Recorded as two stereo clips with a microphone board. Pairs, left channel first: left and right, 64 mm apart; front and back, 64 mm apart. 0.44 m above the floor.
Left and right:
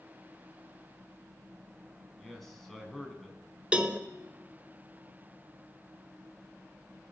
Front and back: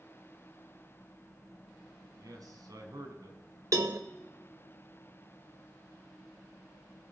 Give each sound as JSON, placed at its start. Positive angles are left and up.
{"t": 2.2, "sound": "a man speaking", "azimuth_deg": 175, "distance_m": 3.5}
{"t": 3.7, "sound": "a cowbell", "azimuth_deg": -160, "distance_m": 0.9}